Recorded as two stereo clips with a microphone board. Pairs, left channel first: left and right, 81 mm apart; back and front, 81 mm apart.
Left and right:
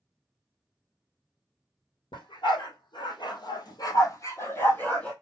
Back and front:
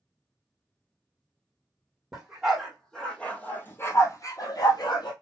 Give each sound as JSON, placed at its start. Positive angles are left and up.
{"t": 2.1, "sound": "a dog barking", "azimuth_deg": 85, "distance_m": 1.8}